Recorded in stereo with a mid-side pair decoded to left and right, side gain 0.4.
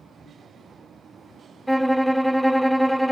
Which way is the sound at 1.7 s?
5° right.